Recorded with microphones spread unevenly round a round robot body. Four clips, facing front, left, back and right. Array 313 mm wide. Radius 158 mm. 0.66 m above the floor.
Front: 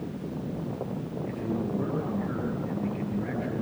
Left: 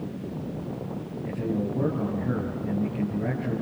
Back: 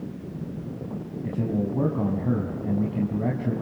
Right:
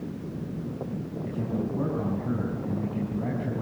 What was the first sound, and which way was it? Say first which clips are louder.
A man speaking: left 3 dB, back 5 dB; straight behind.